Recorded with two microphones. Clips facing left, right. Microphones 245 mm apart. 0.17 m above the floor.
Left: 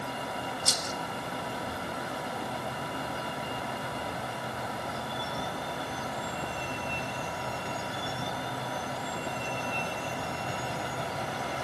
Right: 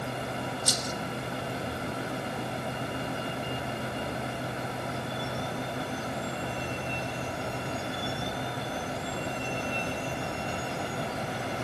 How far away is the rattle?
About 1.9 m.